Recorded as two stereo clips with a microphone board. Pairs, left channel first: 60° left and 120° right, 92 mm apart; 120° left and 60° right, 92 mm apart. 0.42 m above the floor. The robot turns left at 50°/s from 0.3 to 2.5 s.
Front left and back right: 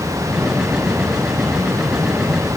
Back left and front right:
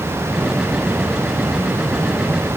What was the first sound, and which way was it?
Only background noise.